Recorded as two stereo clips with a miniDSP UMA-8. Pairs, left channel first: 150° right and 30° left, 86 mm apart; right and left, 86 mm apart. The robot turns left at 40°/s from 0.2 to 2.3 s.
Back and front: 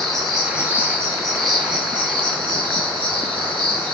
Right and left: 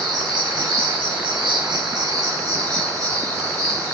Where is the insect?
125° left, 5.5 m; by 3.9 s 40° left, 5.5 m.